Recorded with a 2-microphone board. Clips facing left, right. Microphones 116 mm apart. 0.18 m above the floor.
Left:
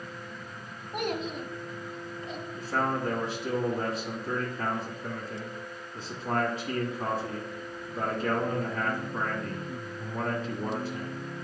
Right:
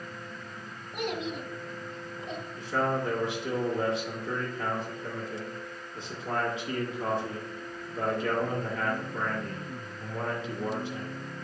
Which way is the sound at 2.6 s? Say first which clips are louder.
Right 1 dB; 40° left (ahead or behind).